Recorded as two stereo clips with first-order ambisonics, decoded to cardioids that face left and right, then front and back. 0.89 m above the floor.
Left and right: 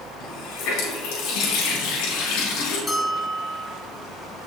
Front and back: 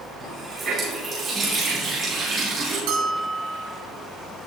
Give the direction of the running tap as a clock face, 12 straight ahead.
8 o'clock.